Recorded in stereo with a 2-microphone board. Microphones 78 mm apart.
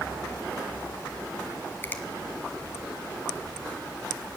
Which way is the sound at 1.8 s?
30° left (ahead or behind).